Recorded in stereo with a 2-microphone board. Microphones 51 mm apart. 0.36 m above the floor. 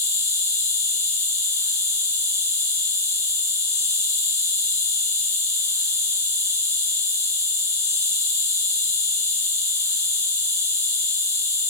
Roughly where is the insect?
Left.